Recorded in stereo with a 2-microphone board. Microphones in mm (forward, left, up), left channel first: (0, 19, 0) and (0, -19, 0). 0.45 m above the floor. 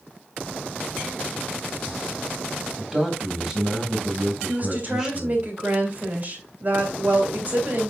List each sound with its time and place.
2.8 s a man speaking: 10° right (ahead or behind), 3 m
4.5 s a woman speaking: 45° right (ahead or behind), 3 m